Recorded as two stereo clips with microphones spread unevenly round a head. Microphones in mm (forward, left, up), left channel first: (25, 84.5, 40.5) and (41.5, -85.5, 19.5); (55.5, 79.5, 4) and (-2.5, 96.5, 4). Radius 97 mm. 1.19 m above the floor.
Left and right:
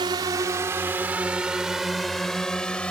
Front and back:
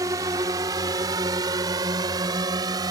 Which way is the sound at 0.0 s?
150° right.